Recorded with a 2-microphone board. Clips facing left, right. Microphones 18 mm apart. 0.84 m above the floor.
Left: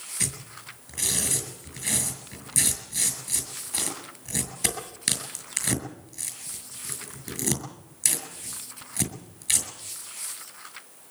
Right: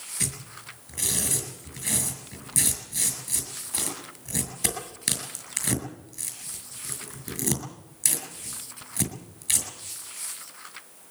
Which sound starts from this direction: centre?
Tearing paper, at 0.2 s.